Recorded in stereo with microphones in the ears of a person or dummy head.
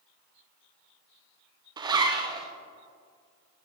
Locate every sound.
1.8 s a zipper: 20° right (ahead or behind), 0.8 m